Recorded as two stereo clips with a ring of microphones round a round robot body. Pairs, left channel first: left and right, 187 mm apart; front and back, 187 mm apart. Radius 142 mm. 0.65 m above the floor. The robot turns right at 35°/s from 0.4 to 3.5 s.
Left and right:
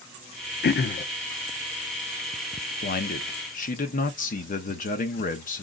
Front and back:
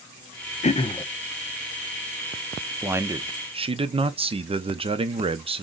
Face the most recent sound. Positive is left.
turn(degrees=125)